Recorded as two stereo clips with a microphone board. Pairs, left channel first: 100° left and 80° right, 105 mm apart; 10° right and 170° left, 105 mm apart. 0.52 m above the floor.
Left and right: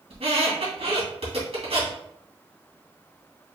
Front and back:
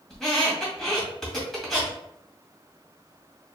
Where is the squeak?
95° right, 2 m.